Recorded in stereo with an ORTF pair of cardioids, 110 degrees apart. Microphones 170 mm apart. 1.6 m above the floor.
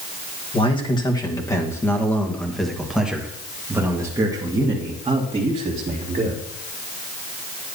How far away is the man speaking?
About 2 m.